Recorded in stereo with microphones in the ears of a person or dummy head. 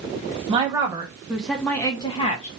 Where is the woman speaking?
25° right (ahead or behind), 1.5 m; by 2.5 s 40° left (ahead or behind), 1.1 m.